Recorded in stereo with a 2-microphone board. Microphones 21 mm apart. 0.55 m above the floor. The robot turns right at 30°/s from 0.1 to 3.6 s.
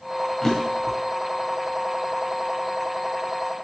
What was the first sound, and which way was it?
A drawer, 25° left (ahead or behind).